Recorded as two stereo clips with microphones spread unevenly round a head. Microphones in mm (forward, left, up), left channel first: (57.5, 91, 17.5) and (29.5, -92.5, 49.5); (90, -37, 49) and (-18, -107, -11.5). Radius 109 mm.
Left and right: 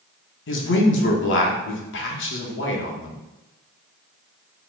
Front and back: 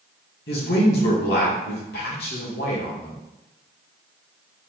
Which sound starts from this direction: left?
A man speaking, at 0.5 s.